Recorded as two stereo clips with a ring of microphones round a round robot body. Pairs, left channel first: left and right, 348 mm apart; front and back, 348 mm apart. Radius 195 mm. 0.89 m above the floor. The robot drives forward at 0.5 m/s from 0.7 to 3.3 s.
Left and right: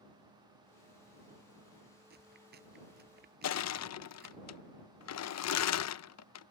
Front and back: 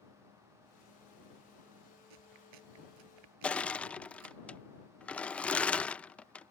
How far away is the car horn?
No car horn in this recording.